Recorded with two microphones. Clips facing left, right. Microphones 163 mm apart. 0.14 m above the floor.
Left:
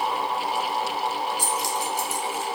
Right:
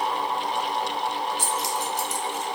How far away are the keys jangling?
About 1.1 m.